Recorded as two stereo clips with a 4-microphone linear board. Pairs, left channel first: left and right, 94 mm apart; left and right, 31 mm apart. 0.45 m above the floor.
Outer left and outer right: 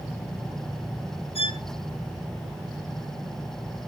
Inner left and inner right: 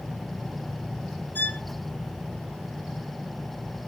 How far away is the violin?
About 4 m.